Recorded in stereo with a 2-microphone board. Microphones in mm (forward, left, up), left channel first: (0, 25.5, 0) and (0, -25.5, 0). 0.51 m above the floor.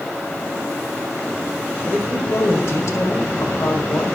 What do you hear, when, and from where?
1.9 s a man speaking: 65° left (ahead or behind), 1.8 m